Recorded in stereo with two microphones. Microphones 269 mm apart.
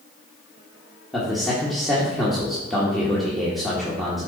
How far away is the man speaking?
About 1.8 m.